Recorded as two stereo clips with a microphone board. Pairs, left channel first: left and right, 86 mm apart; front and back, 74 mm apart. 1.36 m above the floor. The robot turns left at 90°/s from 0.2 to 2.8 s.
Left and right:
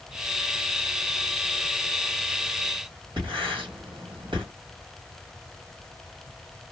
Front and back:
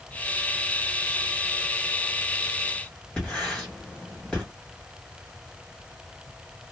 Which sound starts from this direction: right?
Writing, at 3.2 s.